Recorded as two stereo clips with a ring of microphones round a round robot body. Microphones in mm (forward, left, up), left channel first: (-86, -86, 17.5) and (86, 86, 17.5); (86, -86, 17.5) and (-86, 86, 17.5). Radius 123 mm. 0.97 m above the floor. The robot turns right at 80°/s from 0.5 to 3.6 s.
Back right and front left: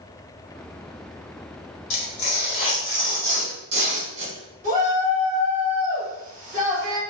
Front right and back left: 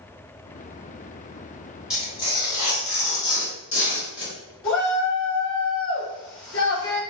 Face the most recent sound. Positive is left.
turn(degrees=-10)